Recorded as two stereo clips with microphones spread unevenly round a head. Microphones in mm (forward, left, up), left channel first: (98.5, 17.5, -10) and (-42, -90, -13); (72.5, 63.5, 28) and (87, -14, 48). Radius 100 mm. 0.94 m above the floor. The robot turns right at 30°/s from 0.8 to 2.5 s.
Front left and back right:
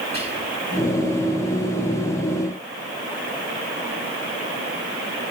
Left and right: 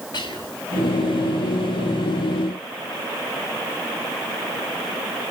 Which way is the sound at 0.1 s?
155° left.